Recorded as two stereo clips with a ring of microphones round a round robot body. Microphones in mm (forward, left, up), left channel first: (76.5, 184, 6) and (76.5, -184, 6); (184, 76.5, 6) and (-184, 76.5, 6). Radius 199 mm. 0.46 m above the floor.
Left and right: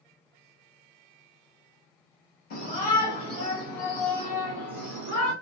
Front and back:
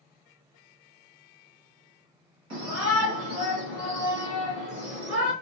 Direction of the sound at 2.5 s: 150° left.